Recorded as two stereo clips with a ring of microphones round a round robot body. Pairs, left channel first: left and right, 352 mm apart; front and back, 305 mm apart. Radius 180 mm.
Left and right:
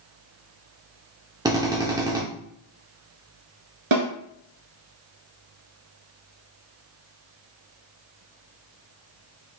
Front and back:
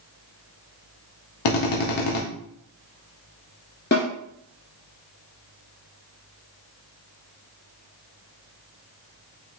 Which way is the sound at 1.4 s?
10° right.